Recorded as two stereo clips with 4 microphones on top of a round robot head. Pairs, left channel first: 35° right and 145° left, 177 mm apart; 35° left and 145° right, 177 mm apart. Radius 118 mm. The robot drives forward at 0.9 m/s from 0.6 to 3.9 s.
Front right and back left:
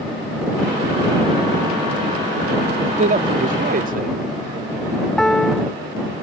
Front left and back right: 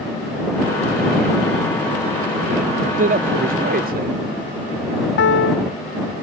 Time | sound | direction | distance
3.0 | a man speaking | 175° right | ?
5.2 | a piano | 50° left | ?